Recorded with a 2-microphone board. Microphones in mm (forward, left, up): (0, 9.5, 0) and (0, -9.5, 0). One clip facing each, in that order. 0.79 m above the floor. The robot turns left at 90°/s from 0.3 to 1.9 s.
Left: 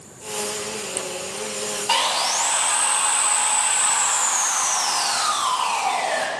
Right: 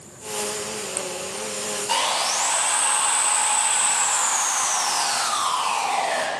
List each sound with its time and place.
1.9 s sawing: 35° left (ahead or behind), 1.0 m